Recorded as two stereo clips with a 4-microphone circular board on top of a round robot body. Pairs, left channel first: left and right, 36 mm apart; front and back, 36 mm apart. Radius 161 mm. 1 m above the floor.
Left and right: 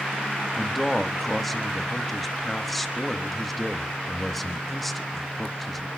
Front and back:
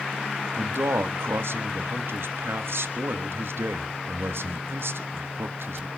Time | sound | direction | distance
0.6 | a man speaking | 175° left | 1.6 m